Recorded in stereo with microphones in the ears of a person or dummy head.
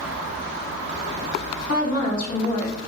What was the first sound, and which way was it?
A woman speaking, 40° left (ahead or behind).